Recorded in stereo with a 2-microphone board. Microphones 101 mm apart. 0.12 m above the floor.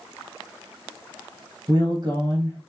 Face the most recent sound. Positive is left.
turn(degrees=-40)  # may be behind; listen again after turning